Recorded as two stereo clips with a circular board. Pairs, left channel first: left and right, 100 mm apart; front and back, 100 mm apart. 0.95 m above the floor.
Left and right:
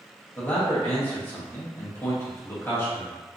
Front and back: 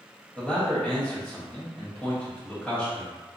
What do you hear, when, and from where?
0.4 s a man speaking: 55° left, 0.9 m